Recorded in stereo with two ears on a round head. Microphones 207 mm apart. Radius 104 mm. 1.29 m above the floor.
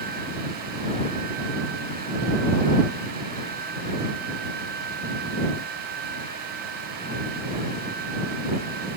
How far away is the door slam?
No door slam in this recording.